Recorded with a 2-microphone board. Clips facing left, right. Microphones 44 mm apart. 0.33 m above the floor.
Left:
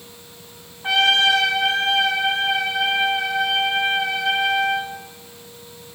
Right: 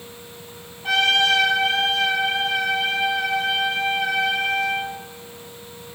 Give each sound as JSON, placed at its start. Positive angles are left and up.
{"t": 0.8, "sound": "a trumpet", "side_deg": 20, "distance_m": 2.0}